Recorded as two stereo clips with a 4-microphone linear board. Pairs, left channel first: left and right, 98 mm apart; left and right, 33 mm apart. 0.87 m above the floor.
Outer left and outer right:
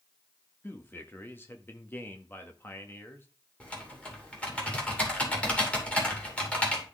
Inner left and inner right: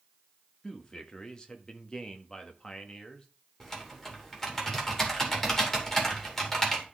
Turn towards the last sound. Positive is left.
turn(degrees=10)  # may be behind; listen again after turning